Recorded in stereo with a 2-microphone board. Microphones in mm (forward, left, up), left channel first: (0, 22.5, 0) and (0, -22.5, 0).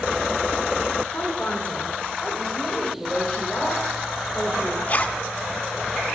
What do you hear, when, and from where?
1.1 s a woman speaking: 40° left (ahead or behind), 2.5 m; by 2.9 s 20° left (ahead or behind), 4 m
3.0 s a woman speaking: 10° left (ahead or behind), 2.5 m
4.9 s a zipper: 35° left (ahead or behind), 0.7 m